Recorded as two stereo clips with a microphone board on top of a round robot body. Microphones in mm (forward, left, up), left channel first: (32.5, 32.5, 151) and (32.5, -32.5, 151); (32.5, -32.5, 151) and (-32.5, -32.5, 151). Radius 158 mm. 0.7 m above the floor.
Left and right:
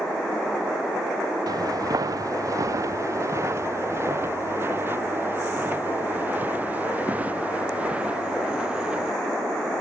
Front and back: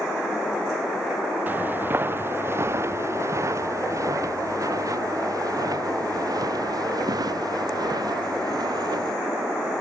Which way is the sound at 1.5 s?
120° right.